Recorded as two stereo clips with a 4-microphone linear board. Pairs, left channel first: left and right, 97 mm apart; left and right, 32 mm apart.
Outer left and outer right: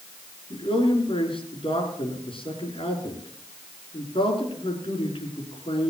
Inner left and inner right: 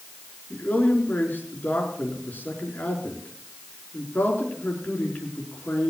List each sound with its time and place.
0.5 s a man speaking: 70° left (ahead or behind), 5 m